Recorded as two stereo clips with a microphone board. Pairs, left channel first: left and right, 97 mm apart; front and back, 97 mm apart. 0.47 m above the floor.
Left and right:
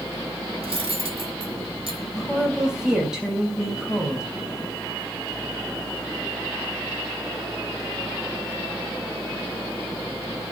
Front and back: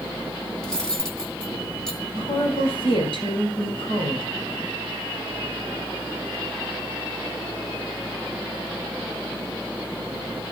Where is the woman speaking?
10° right, 3 m.